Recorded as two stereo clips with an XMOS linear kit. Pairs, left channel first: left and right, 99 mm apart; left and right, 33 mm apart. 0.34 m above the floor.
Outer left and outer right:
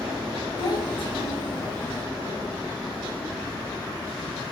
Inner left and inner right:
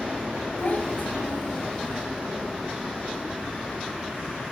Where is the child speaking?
50° left (ahead or behind), 1.8 m; by 2.0 s 70° left (ahead or behind), 3 m.